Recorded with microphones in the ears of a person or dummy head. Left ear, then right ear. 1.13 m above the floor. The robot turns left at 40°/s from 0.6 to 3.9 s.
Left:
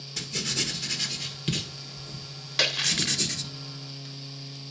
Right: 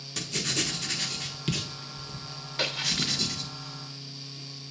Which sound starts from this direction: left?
A splash, at 2.6 s.